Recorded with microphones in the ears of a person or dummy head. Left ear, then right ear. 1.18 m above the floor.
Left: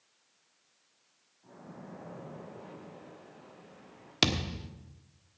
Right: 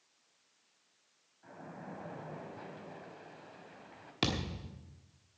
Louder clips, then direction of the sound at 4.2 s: Left 6 dB; 25° left (ahead or behind).